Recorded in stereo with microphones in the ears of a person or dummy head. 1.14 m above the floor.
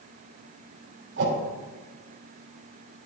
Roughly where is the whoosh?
Right.